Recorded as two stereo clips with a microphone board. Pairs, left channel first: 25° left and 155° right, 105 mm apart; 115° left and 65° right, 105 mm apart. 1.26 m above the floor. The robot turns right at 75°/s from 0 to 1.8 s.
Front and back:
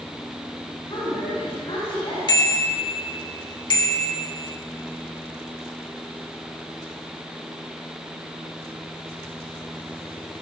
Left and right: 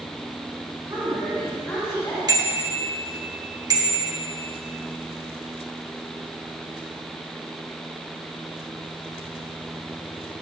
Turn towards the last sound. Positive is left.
turn(degrees=-20)